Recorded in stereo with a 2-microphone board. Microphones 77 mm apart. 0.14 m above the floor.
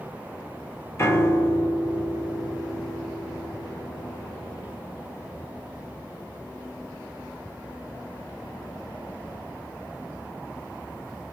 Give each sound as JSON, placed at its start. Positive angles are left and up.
{"t": 1.0, "sound": "a piano", "side_deg": 35, "distance_m": 0.8}